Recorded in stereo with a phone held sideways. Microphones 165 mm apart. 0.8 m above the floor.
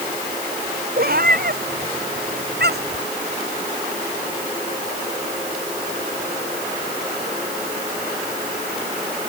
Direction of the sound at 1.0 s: 65° right (ahead or behind).